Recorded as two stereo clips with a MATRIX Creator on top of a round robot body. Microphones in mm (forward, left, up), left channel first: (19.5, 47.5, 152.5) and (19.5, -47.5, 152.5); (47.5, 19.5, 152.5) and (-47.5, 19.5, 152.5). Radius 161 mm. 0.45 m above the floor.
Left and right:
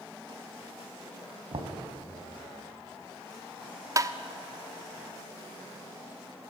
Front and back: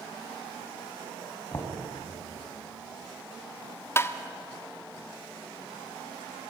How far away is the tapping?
About 1.3 m.